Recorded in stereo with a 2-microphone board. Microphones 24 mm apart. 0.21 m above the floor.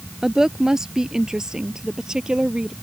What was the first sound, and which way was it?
A woman speaking, 25° right (ahead or behind).